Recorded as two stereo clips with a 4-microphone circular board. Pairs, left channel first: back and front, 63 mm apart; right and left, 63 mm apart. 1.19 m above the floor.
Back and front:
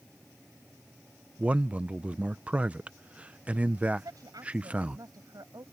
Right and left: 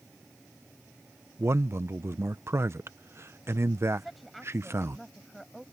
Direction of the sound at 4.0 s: Straight ahead.